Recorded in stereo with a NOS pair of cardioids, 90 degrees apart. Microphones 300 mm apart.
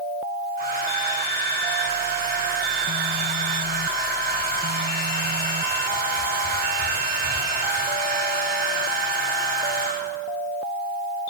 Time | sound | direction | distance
0.6 | a hair dryer | 30° right | 9 m